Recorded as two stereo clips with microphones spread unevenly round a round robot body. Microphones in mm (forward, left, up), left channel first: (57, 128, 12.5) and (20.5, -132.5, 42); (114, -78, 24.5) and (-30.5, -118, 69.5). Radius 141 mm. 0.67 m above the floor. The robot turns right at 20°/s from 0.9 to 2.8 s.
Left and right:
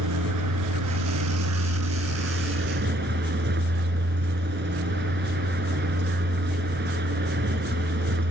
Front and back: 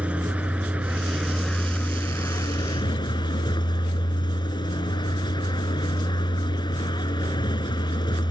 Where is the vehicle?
85° right; by 8.3 s 45° right.